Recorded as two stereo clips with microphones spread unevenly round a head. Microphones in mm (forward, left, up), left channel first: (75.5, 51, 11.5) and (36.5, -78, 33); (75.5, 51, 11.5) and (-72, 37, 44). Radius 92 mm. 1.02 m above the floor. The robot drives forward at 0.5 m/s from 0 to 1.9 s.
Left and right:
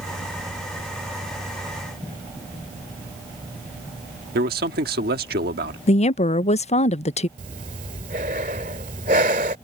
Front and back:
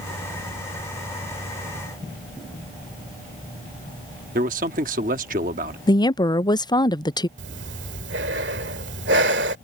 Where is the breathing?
155° right.